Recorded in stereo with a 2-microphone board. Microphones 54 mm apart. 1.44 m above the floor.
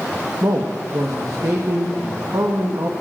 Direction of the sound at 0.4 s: 80° right.